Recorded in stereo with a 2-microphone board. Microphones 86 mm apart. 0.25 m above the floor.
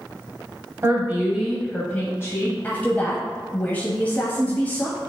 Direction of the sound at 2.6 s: 20° left (ahead or behind).